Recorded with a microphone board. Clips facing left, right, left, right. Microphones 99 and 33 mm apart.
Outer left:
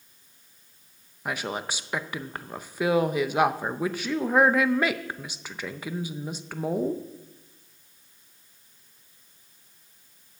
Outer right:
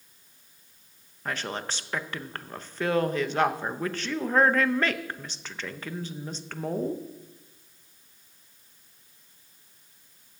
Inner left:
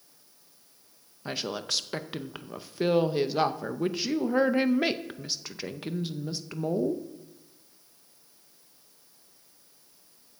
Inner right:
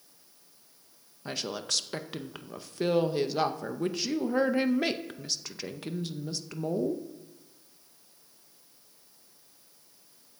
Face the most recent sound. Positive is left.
turn(degrees=10)  # may be behind; listen again after turning